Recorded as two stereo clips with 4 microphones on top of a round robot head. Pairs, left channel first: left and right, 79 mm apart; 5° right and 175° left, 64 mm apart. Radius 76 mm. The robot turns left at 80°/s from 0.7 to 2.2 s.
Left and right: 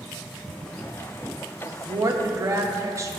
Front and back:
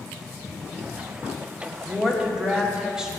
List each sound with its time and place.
1.6 s a woman speaking: 65° right, 1.4 m; by 3.1 s 110° right, 1.4 m